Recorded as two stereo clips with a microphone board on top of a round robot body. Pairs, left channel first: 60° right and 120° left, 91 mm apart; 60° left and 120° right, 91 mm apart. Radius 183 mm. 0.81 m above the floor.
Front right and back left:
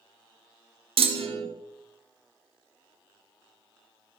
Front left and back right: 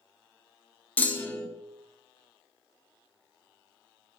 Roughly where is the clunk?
Behind left.